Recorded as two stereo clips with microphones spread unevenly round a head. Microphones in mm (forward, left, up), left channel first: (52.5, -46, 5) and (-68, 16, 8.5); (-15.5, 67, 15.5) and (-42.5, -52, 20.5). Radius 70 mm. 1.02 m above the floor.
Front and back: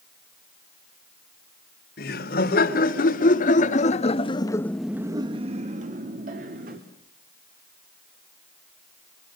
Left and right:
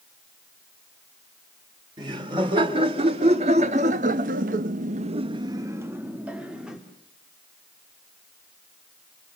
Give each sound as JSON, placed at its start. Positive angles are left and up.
{"t": 2.0, "sound": "laughter", "azimuth_deg": -40, "distance_m": 4.0}